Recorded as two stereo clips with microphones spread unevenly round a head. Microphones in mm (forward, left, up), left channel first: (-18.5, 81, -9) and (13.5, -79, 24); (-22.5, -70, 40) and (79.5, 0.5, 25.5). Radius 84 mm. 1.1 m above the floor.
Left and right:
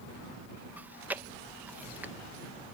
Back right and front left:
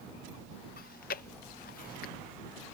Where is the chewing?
160° right.